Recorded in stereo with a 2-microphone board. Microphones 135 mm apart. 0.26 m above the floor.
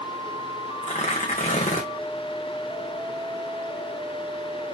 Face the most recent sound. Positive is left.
turn(degrees=60)  # may be behind; listen again after turning